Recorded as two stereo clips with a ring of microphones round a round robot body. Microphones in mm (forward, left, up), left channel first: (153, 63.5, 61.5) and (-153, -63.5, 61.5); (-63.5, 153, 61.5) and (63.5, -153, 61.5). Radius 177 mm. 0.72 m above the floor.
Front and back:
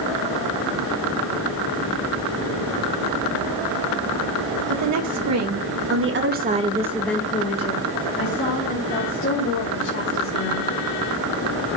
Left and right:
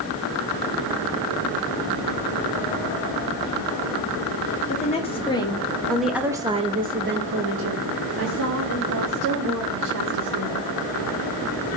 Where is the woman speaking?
Straight behind, 2 m; by 10.7 s 20° right, 4 m.